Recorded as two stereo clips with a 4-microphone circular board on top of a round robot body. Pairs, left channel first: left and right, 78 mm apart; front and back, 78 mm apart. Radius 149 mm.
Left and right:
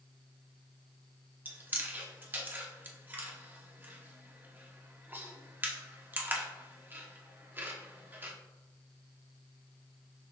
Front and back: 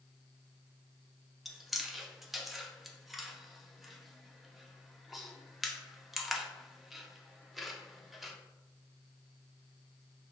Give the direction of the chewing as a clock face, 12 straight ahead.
3 o'clock.